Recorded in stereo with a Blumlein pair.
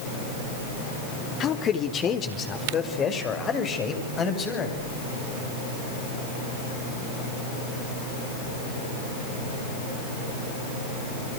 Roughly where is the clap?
I don't hear a clap.